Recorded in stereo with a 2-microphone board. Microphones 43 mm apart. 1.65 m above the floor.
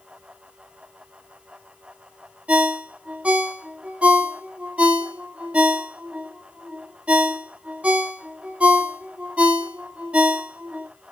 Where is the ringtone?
30° right (ahead or behind), 0.9 m.